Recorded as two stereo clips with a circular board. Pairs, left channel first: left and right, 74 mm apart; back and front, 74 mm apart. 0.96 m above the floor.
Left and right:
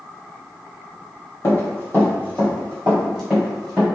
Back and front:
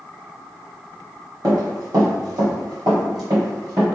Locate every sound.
1.4 s running footsteps: 35° left, 1.8 m; by 3.8 s 5° right, 2 m